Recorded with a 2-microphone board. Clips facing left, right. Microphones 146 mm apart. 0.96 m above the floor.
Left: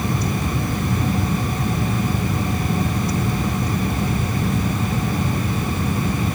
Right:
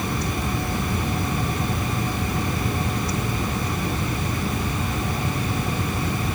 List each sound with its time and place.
Only background noise.